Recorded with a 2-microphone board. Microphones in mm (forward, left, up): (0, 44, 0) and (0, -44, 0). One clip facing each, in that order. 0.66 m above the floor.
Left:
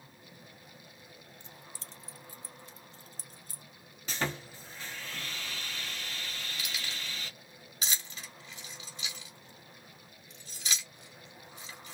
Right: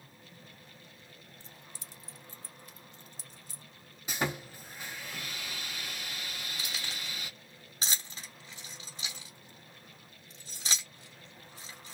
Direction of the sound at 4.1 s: 15° right (ahead or behind).